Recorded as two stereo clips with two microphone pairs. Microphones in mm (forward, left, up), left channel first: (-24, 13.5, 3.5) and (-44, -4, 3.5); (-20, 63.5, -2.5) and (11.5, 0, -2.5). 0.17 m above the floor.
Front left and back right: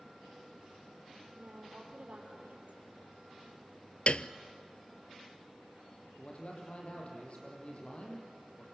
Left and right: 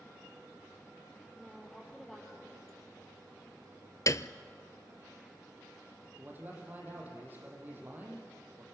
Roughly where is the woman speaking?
Behind.